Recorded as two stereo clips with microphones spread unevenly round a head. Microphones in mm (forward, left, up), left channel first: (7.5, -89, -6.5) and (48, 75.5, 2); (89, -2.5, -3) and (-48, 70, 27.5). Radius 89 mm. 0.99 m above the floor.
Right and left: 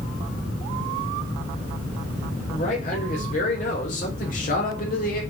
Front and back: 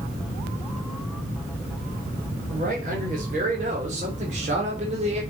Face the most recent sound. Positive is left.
turn(degrees=-150)